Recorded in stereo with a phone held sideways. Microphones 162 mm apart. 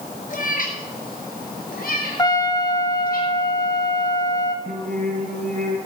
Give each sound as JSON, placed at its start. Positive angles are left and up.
{"t": 0.3, "sound": "a cat meowing", "side_deg": 60, "distance_m": 3.0}
{"t": 2.2, "sound": "a trumpet", "side_deg": 25, "distance_m": 1.5}
{"t": 4.7, "sound": "singing", "side_deg": -65, "distance_m": 7.5}